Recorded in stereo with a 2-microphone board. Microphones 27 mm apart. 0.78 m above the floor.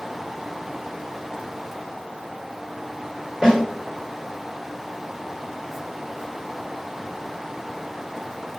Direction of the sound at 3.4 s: 35° right (ahead or behind).